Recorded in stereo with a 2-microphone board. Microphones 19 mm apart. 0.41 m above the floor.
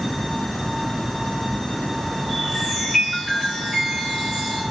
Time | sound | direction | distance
2.3 | a chime | 15° left (ahead or behind) | 1.4 m